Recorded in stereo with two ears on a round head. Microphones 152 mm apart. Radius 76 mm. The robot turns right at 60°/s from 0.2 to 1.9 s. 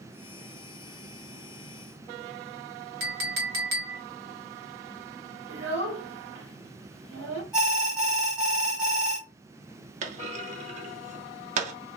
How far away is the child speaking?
About 1.6 m.